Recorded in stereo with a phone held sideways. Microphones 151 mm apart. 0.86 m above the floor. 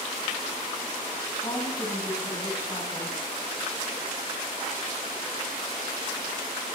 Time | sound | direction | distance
1.4 | a woman speaking | 30° left (ahead or behind) | 7 m